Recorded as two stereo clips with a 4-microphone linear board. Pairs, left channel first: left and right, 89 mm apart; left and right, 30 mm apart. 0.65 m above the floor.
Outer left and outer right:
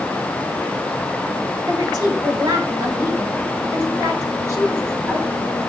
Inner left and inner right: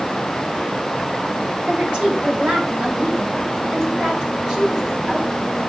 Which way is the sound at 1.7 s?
50° right (ahead or behind).